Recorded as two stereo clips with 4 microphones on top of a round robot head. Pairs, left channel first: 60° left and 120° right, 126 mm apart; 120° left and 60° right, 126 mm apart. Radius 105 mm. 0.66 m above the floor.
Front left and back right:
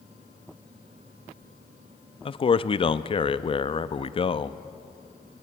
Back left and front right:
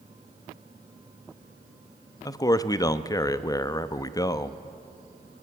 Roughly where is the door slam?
No door slam in this recording.